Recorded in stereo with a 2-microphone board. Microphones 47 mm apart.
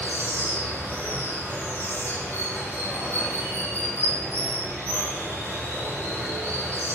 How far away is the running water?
About 1.8 m.